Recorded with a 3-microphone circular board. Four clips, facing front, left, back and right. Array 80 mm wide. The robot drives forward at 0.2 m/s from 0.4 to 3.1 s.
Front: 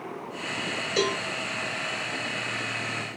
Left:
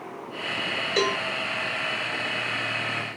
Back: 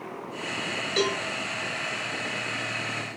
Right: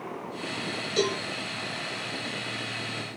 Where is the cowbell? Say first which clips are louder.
Left 2 dB, even; 95° left, 2.5 m.